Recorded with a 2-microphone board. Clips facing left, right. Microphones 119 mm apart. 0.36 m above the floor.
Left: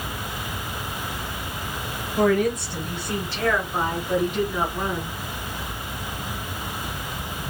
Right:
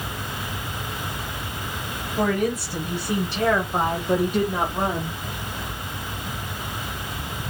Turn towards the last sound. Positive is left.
turn(degrees=-50)  # may be behind; listen again after turning